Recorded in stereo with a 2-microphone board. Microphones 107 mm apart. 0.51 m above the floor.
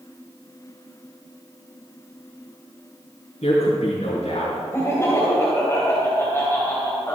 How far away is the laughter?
About 2 m.